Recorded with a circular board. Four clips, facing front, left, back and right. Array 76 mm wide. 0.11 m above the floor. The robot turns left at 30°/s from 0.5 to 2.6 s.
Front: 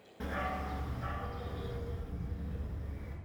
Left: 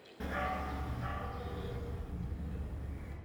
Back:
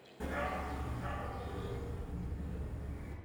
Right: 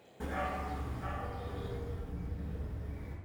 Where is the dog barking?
40° left, 0.6 m; by 3.1 s 20° right, 0.6 m.